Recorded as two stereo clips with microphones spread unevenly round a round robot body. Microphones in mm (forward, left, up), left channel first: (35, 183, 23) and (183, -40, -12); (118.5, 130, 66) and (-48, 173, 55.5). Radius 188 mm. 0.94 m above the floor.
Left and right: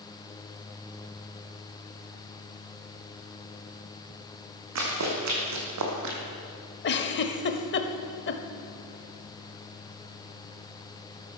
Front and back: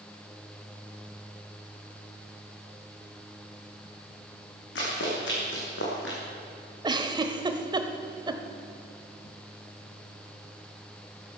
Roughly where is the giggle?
Left.